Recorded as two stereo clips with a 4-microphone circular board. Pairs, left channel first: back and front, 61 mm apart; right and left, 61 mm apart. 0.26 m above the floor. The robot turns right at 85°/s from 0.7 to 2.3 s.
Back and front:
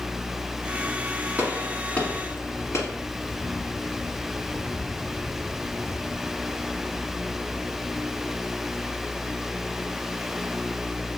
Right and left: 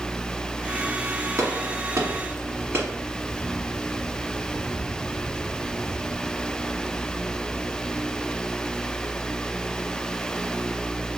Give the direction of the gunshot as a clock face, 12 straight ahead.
10 o'clock.